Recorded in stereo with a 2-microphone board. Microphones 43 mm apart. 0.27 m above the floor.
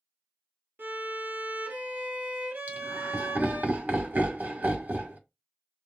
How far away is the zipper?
I don't hear a zipper.